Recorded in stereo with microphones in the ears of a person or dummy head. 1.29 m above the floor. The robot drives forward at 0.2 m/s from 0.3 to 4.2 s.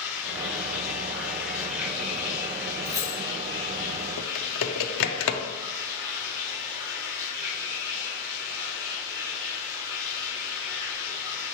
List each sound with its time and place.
0.0 s running water: 5° right (ahead or behind), 1.0 m; by 11.6 s 10° right (ahead or behind), 0.7 m
2.9 s keys jangling: 20° right (ahead or behind), 0.6 m
4.2 s typing on a keyboard: 65° left (ahead or behind), 0.5 m